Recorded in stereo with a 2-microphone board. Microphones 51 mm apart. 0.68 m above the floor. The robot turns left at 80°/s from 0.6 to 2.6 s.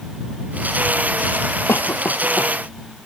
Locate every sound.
1.7 s a cough: 55° left (ahead or behind); by 2.5 s 40° left (ahead or behind)